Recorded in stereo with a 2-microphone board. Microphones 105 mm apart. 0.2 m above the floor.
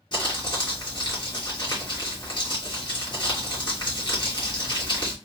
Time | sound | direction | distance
0.1 | crumpling | 45° left (ahead or behind) | 2.5 m